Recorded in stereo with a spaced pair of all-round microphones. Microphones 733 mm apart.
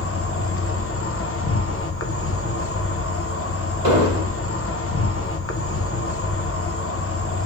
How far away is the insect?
About 0.7 m.